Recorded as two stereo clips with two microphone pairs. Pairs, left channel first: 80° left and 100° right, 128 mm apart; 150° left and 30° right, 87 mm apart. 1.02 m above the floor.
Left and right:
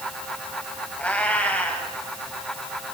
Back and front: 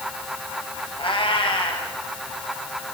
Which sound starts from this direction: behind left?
A cat meowing, at 1.0 s.